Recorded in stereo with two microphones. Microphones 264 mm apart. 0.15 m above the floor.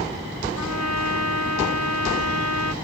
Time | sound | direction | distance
0.6 | a trumpet | 75° right (ahead or behind) | ?